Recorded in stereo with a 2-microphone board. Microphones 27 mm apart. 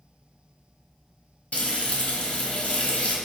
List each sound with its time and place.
1.5 s frying: 70° left (ahead or behind), 1.5 m